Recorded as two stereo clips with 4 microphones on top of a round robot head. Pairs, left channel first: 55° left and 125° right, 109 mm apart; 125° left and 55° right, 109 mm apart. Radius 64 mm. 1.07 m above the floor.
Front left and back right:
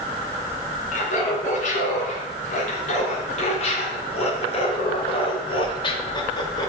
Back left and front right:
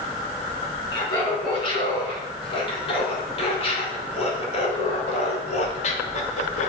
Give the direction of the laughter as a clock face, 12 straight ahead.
10 o'clock.